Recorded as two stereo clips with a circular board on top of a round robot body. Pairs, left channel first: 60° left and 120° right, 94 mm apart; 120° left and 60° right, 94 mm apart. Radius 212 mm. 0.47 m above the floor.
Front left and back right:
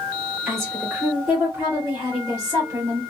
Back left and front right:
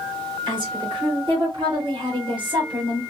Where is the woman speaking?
30° right, 3 m; by 3.0 s 55° right, 1.9 m.